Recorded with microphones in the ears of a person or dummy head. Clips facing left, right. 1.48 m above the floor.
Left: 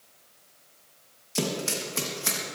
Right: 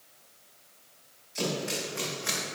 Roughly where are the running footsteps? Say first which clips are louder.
Left 2 dB; left.